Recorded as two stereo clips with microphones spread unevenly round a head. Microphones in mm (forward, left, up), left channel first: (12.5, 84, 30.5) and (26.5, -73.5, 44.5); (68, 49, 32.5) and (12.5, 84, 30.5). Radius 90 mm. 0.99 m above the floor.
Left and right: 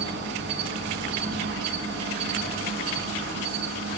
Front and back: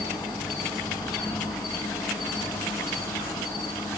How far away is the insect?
About 6.5 m.